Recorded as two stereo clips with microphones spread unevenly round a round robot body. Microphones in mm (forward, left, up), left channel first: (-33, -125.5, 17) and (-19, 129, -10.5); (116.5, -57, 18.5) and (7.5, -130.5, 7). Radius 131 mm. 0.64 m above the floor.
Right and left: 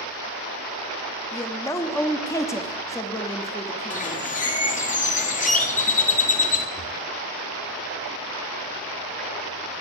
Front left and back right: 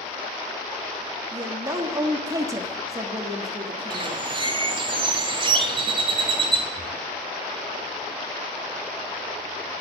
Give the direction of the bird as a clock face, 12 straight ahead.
5 o'clock.